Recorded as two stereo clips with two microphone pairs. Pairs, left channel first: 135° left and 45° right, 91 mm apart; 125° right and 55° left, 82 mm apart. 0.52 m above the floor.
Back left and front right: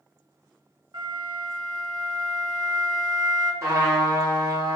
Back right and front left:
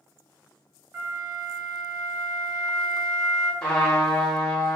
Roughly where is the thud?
No thud in this recording.